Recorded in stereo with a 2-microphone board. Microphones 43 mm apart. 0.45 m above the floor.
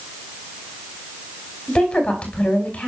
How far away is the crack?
I don't hear a crack.